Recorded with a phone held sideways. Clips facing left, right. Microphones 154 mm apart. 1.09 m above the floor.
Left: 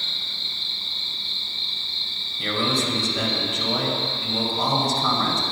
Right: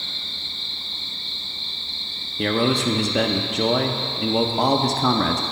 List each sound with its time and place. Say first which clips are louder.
0.0 s an insect: right 1 dB; 50° right (ahead or behind), 1.0 m
2.4 s a man speaking: right 5 dB; 65° right (ahead or behind), 0.7 m